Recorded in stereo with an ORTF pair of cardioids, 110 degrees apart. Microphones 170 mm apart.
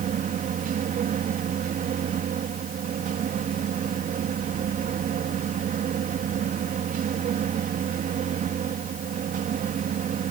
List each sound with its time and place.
0.0 s a machine running: 55° right